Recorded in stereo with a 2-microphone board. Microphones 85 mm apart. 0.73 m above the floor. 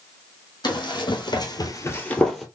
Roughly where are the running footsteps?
Left.